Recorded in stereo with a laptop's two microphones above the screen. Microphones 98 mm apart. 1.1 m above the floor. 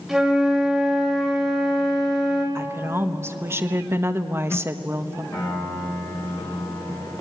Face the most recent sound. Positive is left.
turn(degrees=35)  # may be behind; listen again after turning